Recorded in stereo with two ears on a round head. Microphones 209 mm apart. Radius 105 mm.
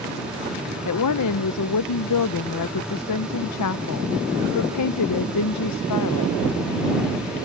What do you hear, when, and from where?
0.8 s a woman speaking: 85° left